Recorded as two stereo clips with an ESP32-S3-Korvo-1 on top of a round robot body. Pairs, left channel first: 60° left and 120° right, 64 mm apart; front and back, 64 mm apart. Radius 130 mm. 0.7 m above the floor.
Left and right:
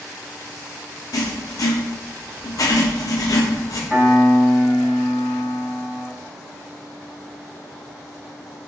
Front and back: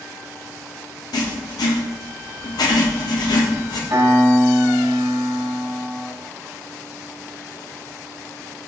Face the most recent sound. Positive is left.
turn(degrees=150)